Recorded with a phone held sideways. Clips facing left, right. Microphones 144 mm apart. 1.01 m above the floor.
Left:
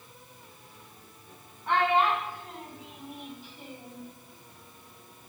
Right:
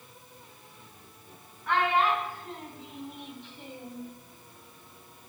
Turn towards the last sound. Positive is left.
turn(degrees=-5)  # may be behind; listen again after turning